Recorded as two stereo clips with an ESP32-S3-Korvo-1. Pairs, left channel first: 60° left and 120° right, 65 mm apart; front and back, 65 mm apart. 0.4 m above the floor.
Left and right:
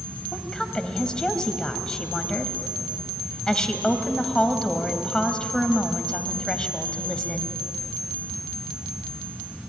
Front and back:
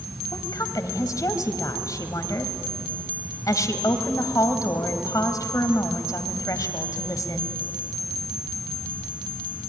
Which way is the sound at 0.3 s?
15° right.